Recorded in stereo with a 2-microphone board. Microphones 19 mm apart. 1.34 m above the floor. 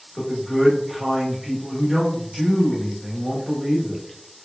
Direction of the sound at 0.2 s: 5° right (ahead or behind).